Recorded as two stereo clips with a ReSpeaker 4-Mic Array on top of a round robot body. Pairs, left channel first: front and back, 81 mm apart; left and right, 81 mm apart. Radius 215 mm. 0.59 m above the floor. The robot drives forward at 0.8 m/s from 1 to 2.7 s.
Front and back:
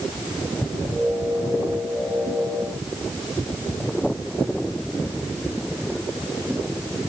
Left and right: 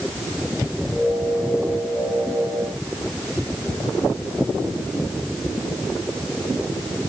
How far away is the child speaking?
No child speaking in this recording.